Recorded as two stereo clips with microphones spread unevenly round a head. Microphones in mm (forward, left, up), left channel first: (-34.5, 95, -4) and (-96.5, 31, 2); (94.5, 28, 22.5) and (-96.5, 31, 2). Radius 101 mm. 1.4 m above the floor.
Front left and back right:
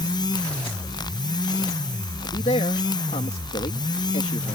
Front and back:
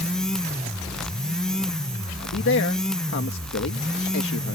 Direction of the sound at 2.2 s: 20° left.